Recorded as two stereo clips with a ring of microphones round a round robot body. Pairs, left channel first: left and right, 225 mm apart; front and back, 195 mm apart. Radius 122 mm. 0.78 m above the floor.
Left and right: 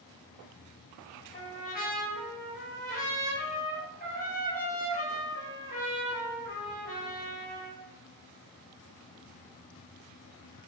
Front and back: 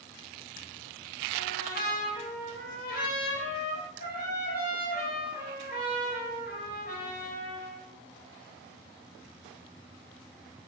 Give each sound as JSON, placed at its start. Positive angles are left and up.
{"t": 1.3, "sound": "a trumpet", "azimuth_deg": 35, "distance_m": 5.5}